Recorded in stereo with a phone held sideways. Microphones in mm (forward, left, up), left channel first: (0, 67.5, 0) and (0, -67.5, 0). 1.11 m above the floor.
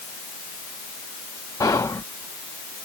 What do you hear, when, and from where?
1.6 s whispering: 25° left (ahead or behind)